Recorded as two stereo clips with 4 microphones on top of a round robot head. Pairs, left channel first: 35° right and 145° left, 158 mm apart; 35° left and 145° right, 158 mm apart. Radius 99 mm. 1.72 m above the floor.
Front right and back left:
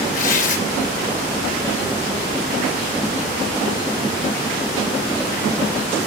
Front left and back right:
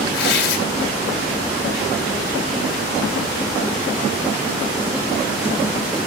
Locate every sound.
0.1 s tearing paper: 5° left, 2.5 m